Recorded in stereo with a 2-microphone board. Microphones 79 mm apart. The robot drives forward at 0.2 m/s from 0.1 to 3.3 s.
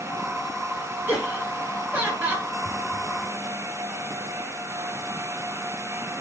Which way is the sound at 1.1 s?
20° right (ahead or behind).